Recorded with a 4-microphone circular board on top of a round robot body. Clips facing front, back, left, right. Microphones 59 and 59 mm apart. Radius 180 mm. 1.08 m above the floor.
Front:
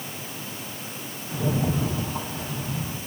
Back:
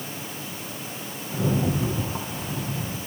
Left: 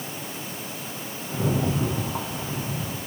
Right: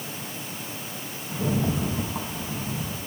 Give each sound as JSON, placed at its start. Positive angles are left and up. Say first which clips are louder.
{"t": 1.3, "sound": "a rattle", "louder": "back 1 dB, left 1 dB", "azimuth_deg": 115, "distance_m": 9.0}